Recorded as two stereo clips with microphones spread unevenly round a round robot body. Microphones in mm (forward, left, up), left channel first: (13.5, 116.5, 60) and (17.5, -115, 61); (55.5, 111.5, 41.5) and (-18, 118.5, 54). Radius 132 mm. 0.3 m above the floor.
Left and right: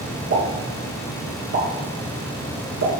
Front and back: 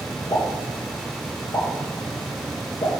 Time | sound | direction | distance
0.3 | a pop | 60° right | 4 m